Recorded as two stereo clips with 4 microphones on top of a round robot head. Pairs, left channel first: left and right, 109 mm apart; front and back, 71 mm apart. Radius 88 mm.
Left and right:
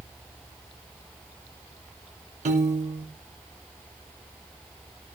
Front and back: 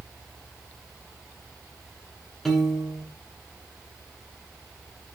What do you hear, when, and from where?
2.5 s a piano: 80° right, 1.4 m